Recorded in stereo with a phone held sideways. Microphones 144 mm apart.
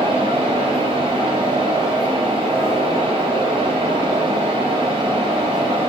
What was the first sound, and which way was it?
A fan, 40° right (ahead or behind).